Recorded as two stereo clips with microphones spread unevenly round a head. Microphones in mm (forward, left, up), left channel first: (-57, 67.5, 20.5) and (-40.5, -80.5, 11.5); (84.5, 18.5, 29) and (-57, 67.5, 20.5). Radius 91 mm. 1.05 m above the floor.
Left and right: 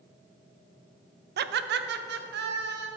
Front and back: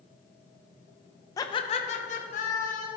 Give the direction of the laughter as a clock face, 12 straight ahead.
3 o'clock.